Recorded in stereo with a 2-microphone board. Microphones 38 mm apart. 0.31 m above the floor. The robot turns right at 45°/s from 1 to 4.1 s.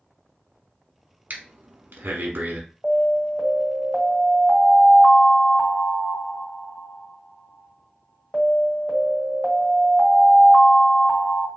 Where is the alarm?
5° right, 1.6 m; by 11.5 s 50° left, 1.6 m.